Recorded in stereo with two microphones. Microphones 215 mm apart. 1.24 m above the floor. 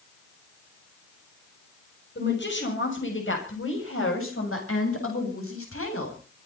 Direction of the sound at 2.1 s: 55° left (ahead or behind).